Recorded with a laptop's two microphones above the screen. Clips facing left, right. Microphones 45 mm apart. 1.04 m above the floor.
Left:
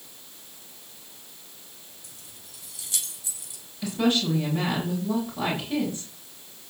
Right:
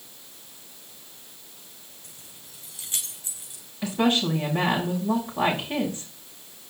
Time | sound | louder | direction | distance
2.0 | keys jangling | even | 30° right (ahead or behind) | 4.5 m
3.8 | a woman speaking | right 1 dB | 30° right (ahead or behind) | 6.5 m